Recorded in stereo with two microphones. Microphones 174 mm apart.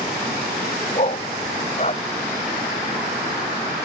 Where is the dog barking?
40° left (ahead or behind).